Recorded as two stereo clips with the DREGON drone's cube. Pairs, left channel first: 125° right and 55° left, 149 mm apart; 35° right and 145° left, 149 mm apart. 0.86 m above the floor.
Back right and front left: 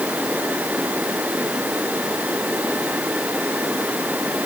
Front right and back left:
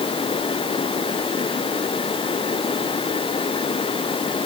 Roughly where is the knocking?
No knocking in this recording.